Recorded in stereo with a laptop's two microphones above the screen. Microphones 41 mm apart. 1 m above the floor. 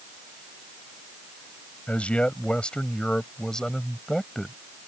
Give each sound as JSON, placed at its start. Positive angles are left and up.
{"t": 1.9, "sound": "a man speaking", "side_deg": 30}